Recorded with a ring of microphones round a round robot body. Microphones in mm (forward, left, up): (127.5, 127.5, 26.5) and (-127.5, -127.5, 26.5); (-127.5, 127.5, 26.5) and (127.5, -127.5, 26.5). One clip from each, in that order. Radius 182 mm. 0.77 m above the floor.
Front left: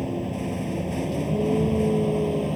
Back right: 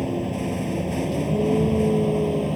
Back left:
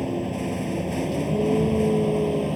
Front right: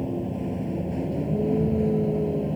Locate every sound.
0.0 s a vehicle: 145° left; by 2.6 s 130° left